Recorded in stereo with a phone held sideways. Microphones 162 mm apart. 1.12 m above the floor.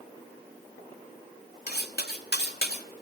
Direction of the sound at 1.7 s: 80° left.